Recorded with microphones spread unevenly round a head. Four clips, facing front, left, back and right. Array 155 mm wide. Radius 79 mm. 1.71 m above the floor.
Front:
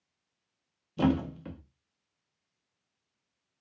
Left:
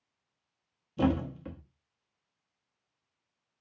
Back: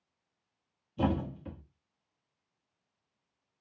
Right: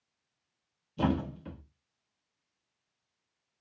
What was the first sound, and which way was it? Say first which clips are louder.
A thud: left 2 dB, front 4 dB; 40° left.